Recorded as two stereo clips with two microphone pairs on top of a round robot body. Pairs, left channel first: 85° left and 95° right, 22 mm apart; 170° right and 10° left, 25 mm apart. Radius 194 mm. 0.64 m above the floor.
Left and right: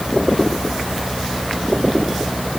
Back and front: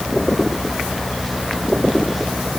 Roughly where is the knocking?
No knocking in this recording.